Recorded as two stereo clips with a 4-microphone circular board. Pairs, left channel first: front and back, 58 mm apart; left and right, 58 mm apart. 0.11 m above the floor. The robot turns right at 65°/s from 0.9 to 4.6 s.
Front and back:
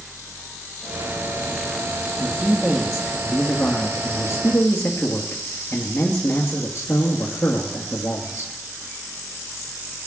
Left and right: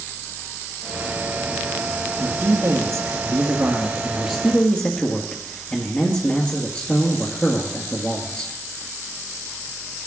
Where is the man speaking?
120° right, 1.8 m; by 8.5 s 40° left, 1.8 m.